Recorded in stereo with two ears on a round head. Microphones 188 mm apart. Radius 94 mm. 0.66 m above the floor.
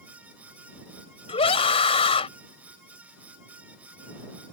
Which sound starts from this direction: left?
A scream, at 1.3 s.